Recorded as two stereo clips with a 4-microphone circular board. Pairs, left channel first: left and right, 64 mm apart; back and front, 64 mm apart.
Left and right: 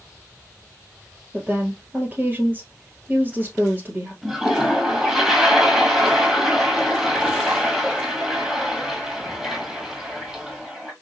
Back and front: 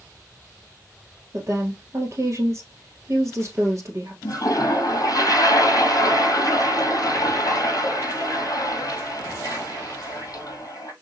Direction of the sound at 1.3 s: 35° right.